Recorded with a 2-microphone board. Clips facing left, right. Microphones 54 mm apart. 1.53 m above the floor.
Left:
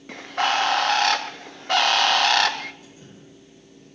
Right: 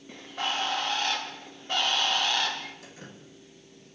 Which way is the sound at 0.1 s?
75° left (ahead or behind).